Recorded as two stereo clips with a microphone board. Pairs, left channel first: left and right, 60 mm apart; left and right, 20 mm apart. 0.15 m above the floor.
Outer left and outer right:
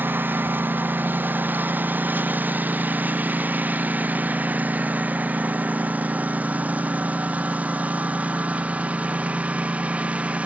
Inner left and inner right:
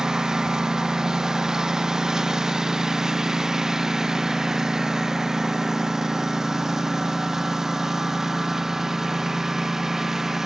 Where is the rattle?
I don't hear a rattle.